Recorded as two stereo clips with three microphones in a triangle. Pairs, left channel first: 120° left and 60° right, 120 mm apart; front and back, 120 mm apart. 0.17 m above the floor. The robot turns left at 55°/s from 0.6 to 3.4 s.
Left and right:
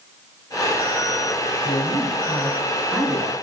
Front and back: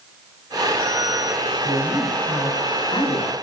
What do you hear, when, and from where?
1.6 s a man speaking: 100° left, 1.6 m; by 3.3 s 5° left, 1.6 m